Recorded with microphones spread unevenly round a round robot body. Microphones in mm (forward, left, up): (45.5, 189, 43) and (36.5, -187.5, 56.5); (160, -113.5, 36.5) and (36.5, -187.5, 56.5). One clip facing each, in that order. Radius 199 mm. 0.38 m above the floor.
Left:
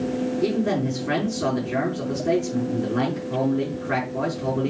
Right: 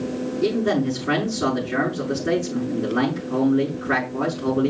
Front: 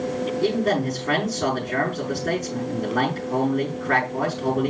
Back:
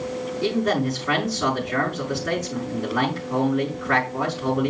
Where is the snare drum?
No snare drum in this recording.